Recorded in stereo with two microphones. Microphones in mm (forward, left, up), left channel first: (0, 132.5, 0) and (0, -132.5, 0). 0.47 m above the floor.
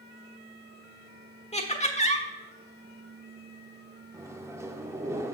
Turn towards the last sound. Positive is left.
turn(degrees=-10)  # may be behind; listen again after turning